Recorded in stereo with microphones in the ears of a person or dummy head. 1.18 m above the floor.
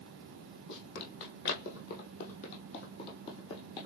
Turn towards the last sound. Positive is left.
turn(degrees=20)  # may be behind; listen again after turning